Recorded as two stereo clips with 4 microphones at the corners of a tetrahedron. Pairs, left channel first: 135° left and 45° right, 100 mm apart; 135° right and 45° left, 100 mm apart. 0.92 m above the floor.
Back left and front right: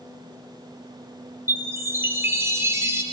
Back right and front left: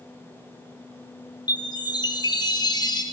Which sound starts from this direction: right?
A chime, at 1.5 s.